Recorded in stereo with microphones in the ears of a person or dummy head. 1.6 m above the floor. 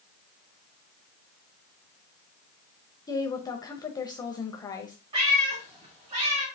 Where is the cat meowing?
30° right (ahead or behind), 2.0 m.